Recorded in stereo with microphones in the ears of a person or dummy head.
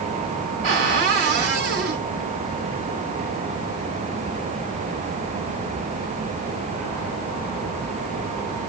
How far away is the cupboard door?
About 1.2 m.